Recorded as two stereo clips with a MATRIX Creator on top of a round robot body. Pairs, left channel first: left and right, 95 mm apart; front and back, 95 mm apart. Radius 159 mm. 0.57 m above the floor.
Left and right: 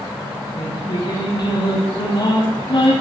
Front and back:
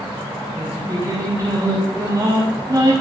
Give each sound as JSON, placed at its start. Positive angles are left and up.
{"t": 0.6, "sound": "singing", "azimuth_deg": 125, "distance_m": 7.5}